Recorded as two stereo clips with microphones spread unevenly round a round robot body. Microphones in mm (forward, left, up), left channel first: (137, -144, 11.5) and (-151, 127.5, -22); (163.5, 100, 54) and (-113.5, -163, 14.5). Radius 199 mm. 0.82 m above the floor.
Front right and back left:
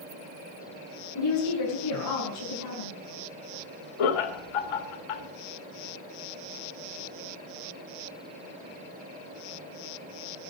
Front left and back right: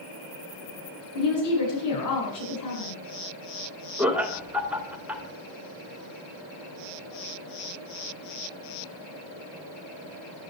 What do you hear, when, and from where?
1.1 s a woman speaking: 5° left, 9 m
4.0 s laughter: 50° right, 2.5 m